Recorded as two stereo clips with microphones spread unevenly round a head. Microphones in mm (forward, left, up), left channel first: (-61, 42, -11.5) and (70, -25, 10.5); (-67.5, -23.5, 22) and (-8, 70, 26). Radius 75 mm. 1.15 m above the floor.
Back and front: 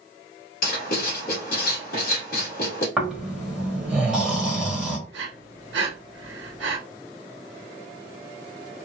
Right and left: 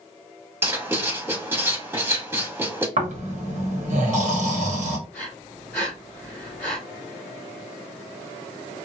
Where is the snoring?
60° left, 1.0 m.